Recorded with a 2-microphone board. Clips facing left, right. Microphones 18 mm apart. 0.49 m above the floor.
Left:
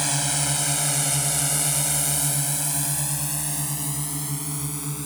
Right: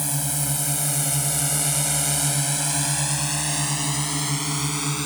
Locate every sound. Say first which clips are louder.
0.0 s a drone: left 3 dB; 30° left (ahead or behind); by 5.1 s 50° right (ahead or behind)